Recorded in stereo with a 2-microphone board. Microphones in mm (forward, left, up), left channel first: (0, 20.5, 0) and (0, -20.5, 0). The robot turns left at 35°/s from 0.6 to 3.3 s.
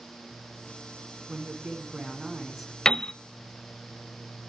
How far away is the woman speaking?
About 2.5 m.